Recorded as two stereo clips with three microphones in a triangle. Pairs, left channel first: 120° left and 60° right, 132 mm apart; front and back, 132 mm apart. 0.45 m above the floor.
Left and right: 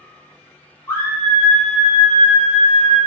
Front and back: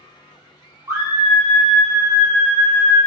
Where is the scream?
160° left, 0.9 m; by 3.0 s 20° left, 1.3 m.